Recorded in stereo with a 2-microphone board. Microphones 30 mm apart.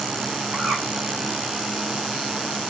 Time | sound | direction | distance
0.5 | a bird | 45° right (ahead or behind) | 1.7 m